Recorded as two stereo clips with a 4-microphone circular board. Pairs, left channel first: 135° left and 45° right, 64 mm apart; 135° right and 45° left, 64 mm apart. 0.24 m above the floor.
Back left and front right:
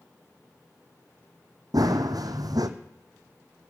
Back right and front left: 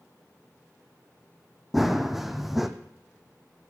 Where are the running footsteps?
40° right, 0.7 m.